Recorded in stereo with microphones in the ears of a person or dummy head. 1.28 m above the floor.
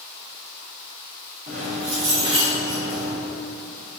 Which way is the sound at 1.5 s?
30° right (ahead or behind).